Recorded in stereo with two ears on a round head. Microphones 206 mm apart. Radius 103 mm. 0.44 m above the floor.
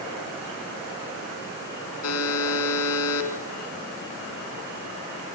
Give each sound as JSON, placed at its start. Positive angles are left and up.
{"t": 2.0, "sound": "a buzzer", "side_deg": 70, "distance_m": 4.0}